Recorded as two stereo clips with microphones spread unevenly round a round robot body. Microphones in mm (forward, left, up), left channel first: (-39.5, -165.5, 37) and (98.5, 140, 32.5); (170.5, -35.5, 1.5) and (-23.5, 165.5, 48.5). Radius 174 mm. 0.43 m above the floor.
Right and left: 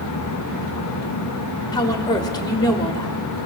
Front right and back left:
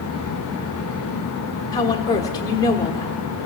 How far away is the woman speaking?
About 1.2 m.